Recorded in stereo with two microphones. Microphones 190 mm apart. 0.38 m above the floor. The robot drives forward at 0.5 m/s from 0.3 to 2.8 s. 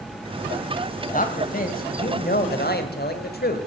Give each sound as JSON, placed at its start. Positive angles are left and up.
{"t": 1.1, "sound": "a man speaking", "side_deg": 45, "distance_m": 1.7}